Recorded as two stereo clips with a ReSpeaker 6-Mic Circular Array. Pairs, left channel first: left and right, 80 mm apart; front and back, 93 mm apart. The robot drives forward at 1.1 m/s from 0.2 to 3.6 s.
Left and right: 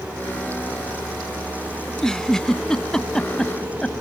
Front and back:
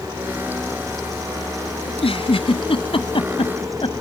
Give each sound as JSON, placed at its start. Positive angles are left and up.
{"t": 1.9, "sound": "a giggle", "azimuth_deg": 5}